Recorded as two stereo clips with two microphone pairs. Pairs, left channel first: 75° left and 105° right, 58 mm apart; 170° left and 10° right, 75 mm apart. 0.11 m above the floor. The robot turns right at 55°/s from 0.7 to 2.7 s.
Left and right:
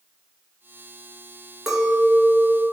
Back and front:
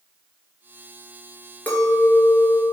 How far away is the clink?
About 0.9 m.